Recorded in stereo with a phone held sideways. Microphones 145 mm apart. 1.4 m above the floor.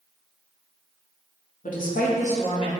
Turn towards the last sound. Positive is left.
turn(degrees=35)  # may be behind; listen again after turning